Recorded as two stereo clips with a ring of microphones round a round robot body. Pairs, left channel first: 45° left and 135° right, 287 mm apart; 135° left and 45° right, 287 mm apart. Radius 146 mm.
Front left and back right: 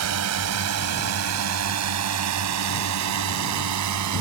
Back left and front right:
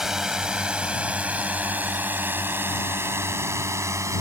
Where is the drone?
135° right; by 4.2 s 125° right.